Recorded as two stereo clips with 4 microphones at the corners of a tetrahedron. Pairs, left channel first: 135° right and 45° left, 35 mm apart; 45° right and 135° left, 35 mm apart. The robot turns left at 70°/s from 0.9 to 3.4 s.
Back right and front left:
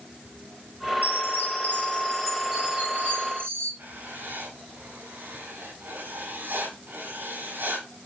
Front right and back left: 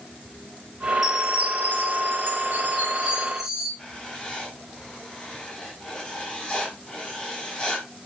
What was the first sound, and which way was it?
A chime, 140° right.